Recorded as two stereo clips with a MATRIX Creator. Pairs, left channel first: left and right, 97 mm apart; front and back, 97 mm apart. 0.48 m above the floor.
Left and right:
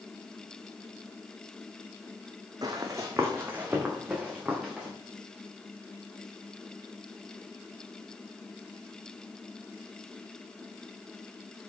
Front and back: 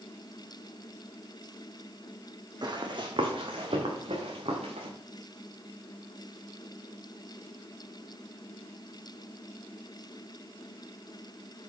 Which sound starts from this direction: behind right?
Running footsteps, at 2.6 s.